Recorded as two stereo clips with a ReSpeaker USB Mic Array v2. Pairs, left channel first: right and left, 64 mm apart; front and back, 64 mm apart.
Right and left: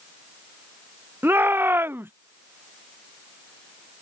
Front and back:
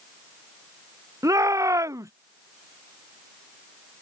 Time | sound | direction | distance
1.2 | a shout | 145° left | ?